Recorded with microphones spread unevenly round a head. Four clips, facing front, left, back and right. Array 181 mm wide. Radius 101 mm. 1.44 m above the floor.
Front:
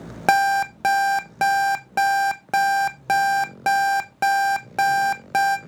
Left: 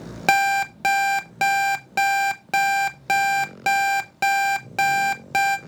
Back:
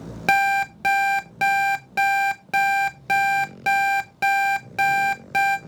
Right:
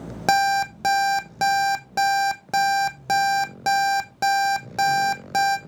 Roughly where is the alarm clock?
Ahead.